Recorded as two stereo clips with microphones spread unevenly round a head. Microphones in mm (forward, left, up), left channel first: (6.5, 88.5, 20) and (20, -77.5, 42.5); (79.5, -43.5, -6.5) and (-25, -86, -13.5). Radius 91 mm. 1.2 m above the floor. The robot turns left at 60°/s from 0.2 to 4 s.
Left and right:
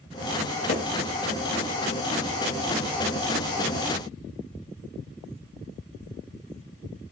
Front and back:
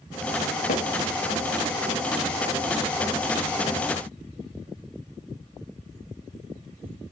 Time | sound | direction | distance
0.7 | hammering | 40° left | 2.5 m